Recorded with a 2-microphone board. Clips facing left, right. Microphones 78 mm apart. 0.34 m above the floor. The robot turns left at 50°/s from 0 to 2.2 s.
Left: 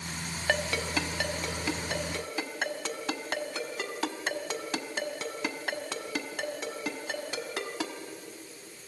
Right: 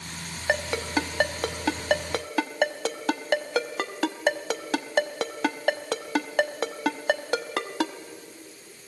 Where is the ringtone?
15° right (ahead or behind), 0.8 m; by 7.9 s 70° right (ahead or behind), 0.8 m.